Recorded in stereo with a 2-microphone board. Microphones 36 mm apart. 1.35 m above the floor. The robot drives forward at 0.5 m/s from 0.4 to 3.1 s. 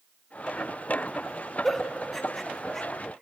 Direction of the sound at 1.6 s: 10° left (ahead or behind).